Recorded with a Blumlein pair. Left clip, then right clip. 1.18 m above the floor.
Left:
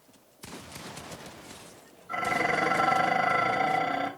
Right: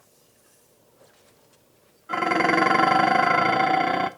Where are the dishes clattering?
30° right, 0.9 m.